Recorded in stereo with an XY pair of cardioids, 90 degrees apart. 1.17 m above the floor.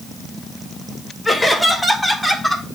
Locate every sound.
1.2 s laughter: 10° left, 4.5 m; by 2.6 s 5° right, 4 m